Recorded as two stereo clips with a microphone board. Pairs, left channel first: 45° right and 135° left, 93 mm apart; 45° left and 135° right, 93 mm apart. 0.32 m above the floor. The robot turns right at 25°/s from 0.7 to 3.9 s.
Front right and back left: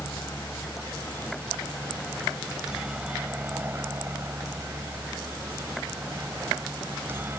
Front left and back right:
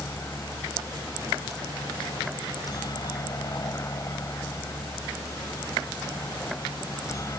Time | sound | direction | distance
0.0 | a helicopter | straight ahead | ?